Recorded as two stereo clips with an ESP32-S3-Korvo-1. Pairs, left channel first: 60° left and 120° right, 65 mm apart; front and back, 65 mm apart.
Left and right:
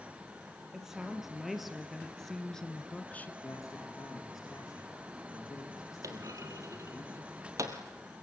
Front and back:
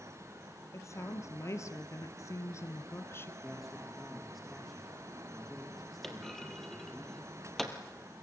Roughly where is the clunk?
Right.